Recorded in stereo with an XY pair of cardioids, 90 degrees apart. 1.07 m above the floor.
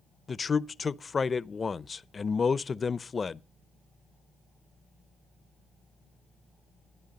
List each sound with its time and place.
0.3 s a man speaking: 35° left, 0.6 m